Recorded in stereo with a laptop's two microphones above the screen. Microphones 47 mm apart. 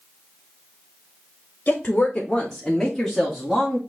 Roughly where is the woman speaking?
Left.